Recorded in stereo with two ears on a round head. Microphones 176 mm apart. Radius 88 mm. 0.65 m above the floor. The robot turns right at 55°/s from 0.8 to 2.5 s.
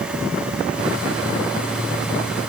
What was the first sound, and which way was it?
Only background noise.